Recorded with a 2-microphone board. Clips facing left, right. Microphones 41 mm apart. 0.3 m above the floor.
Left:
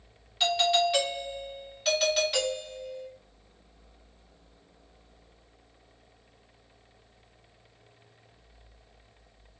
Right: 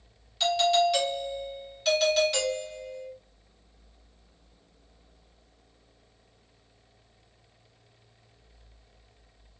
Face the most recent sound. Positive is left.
turn(degrees=15)  # may be behind; listen again after turning